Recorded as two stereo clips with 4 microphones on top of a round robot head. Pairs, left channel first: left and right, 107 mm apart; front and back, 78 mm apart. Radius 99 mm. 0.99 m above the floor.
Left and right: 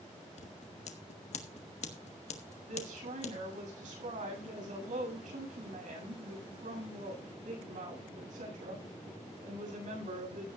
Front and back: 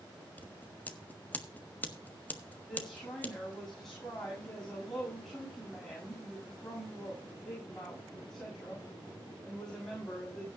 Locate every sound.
0.4 s scissors: 70° left, 1.5 m
2.7 s a woman speaking: 90° right, 7.5 m